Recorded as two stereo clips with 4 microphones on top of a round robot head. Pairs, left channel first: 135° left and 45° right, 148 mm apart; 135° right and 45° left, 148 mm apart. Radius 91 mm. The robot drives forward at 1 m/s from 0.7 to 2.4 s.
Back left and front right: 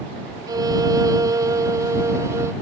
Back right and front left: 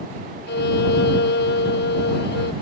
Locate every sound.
0.5 s a violin: 115° right; by 2.5 s 120° right